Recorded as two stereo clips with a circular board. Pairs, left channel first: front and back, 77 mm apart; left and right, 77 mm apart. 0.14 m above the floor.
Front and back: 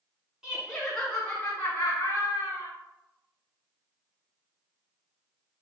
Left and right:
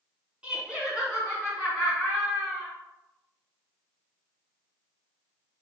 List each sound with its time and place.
0.4 s laughter: 125° right, 1.2 m; by 2.7 s 5° right, 1.5 m